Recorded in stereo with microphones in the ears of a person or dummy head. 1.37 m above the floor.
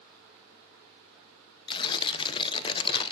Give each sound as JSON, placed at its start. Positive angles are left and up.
{"t": 1.7, "sound": "tearing paper", "side_deg": 30, "distance_m": 0.7}